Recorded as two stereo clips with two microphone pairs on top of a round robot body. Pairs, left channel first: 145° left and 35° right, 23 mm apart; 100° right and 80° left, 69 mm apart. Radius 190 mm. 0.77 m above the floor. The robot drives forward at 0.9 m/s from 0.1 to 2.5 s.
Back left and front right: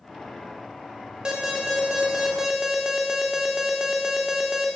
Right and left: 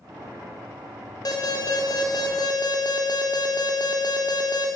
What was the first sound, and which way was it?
An alarm, 85° right.